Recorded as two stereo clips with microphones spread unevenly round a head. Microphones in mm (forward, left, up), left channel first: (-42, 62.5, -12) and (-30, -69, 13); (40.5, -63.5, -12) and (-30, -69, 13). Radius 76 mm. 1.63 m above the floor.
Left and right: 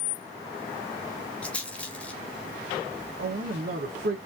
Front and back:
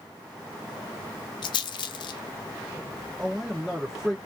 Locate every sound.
1.4 s a rattle: 15° left, 0.6 m
3.2 s a man speaking: 90° right, 1.1 m